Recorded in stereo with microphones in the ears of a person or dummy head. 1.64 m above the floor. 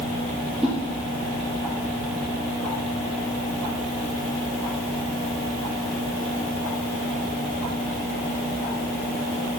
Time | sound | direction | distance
0.6 | a whoosh | 5° left (ahead or behind) | 1.6 m